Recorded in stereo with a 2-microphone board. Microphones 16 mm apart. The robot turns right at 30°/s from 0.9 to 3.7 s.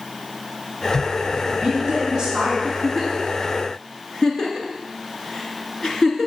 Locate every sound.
1.3 s a woman speaking: 45° right, 3.5 m; by 2.5 s 10° right, 3.5 m
2.6 s a giggle: 5° left (ahead or behind), 1.9 m; by 6.3 s 40° left (ahead or behind), 1.9 m